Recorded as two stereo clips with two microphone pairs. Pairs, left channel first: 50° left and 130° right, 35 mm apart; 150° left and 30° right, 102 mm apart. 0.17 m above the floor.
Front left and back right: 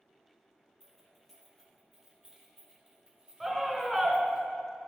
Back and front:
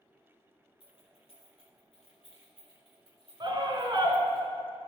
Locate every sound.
0.8 s keys jangling: 135° left, 3 m; by 4.4 s 170° left, 4 m
3.4 s a scream: 40° right, 1.5 m